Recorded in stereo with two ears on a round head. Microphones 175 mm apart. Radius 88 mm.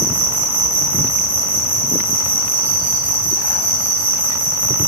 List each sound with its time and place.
0.0 s an insect: 10° left (ahead or behind), 1.8 m